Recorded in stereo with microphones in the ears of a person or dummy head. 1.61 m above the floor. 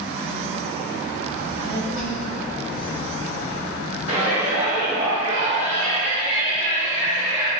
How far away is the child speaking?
About 1.7 m.